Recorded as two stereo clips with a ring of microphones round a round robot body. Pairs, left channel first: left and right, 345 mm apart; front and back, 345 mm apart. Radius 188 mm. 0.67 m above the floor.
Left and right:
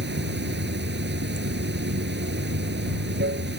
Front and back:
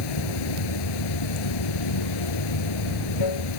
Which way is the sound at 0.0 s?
30° right.